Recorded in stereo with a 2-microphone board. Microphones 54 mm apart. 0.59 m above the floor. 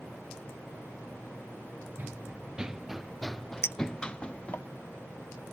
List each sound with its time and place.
2.0 s running footsteps: 30° right (ahead or behind); by 4.6 s 25° left (ahead or behind)
3.6 s a clink: 55° left (ahead or behind)